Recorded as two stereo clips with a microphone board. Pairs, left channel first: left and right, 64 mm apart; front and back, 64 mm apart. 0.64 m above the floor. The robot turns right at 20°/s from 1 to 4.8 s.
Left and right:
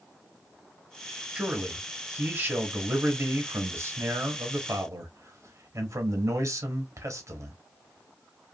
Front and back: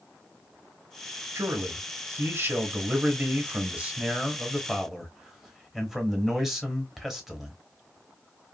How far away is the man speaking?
About 1.0 m.